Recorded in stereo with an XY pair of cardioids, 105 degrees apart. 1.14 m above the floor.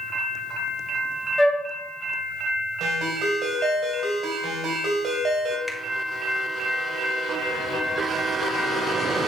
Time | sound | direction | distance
1.4 | a flute | straight ahead | 1.4 m
2.8 | a ringtone | 60° right | 2.5 m
5.7 | a finger snap | 15° left | 1.8 m